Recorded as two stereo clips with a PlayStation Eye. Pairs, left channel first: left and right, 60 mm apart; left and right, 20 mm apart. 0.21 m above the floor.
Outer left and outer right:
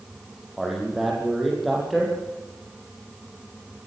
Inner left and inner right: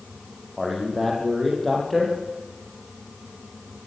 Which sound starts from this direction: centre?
A man speaking, at 0.6 s.